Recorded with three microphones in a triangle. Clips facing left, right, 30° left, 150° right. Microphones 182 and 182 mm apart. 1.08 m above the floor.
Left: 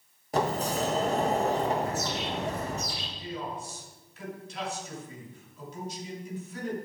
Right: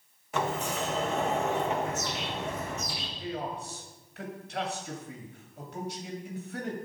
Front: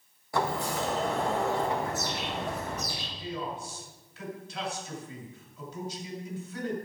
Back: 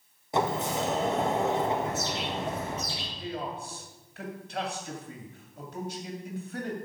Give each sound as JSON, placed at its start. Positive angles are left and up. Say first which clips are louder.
{"t": 0.3, "sound": "a sliding door", "louder": "left 3 dB, back 2 dB", "azimuth_deg": 145, "distance_m": 1.3}
{"t": 1.8, "sound": "a bird", "louder": "left 2 dB, back 2 dB", "azimuth_deg": 150, "distance_m": 6.5}
{"t": 3.2, "sound": "a man speaking", "louder": "right 2 dB, even", "azimuth_deg": -120, "distance_m": 2.5}